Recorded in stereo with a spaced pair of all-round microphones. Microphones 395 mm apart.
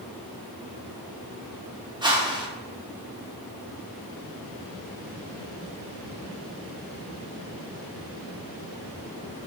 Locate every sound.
2.0 s a whoosh: 10° right (ahead or behind), 0.5 m